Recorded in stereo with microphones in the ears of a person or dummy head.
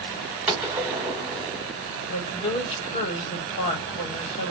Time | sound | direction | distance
0.5 | a gunshot | centre (ahead or behind) | 1.2 m
2.1 | a woman speaking | 45° left (ahead or behind) | 1.9 m